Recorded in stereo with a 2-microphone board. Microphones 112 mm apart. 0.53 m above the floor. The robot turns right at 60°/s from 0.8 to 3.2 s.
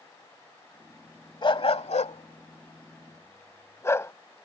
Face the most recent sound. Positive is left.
turn(degrees=25)  # may be behind; listen again after turning